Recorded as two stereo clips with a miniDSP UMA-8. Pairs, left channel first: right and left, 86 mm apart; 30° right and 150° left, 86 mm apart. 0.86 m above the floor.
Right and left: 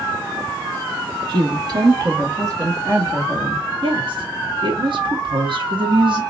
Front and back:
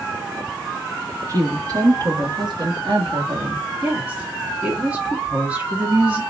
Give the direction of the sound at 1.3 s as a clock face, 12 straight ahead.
9 o'clock.